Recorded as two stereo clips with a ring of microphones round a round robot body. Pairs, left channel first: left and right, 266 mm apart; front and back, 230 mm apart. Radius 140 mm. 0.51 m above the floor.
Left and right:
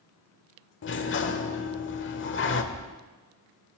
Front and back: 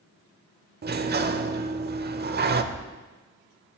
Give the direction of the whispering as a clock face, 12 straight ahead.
5 o'clock.